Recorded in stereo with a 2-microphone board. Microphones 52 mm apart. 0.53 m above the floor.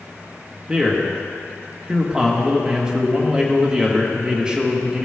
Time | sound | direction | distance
0.7 | a man speaking | 15° right (ahead or behind) | 1.0 m